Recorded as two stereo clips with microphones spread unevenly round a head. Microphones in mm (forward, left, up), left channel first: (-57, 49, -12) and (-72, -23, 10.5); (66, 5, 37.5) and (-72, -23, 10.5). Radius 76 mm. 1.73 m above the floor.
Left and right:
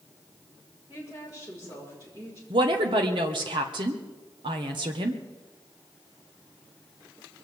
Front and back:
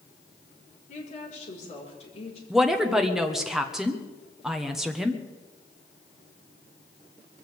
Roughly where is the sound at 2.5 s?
Right.